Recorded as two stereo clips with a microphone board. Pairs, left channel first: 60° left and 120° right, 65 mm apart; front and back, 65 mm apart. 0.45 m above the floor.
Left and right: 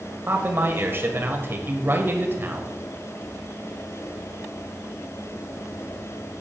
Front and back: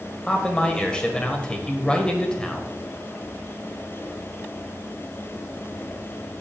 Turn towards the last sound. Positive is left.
turn(degrees=-70)